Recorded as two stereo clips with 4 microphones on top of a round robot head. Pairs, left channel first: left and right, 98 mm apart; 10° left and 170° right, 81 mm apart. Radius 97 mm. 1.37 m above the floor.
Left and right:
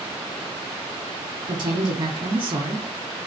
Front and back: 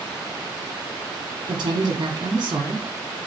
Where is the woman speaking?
130° right, 1.3 m.